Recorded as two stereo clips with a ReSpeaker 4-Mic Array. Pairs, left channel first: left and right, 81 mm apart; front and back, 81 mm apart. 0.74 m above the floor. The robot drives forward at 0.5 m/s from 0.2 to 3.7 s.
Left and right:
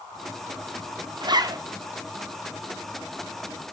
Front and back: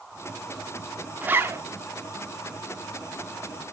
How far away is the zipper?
About 0.7 m.